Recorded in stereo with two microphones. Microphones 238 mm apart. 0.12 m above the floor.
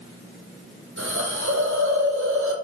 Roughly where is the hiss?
Right.